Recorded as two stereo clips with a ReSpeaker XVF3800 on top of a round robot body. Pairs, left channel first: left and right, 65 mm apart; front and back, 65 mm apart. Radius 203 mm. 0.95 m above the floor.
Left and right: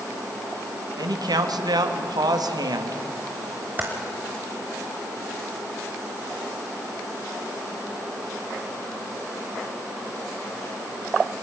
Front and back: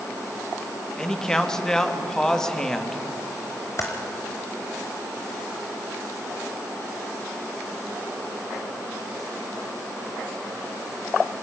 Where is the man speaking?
80° right, 1.9 m.